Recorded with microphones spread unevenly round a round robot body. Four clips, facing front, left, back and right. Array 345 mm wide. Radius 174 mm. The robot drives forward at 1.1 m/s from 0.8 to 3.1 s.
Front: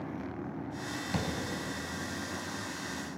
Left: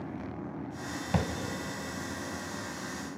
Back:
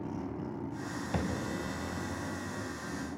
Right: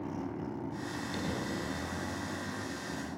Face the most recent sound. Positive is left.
turn(degrees=115)